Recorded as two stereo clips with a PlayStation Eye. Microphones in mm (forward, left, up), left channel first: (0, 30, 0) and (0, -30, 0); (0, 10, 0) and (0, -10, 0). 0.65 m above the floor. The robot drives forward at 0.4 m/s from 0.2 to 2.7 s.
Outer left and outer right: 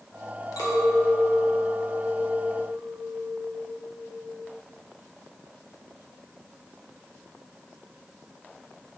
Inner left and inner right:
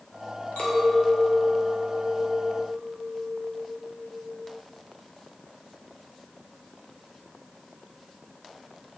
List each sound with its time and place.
0.6 s a clink: 75° left (ahead or behind), 0.9 m; by 4.5 s 55° left (ahead or behind), 1.1 m